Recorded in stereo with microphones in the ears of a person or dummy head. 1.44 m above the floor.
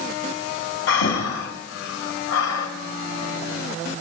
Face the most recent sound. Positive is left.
turn(degrees=70)  # may be behind; listen again after turning